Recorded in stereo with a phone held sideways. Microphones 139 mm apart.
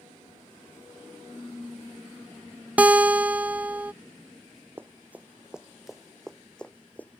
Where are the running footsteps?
15° right (ahead or behind); by 7.2 s 15° left (ahead or behind).